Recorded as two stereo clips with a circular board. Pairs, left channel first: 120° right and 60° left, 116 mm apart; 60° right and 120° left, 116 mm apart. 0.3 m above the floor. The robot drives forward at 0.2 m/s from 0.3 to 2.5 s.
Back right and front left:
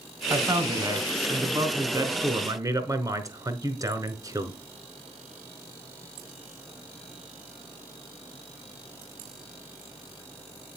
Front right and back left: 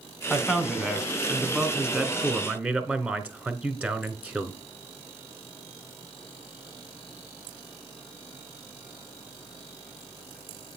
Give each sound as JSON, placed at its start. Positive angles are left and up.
{"t": 0.3, "sound": "a man speaking", "azimuth_deg": 35, "distance_m": 1.6}